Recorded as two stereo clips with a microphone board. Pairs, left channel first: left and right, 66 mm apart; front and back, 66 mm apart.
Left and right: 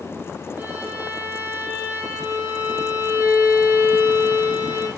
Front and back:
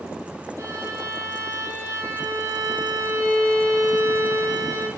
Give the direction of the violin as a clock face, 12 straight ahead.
5 o'clock.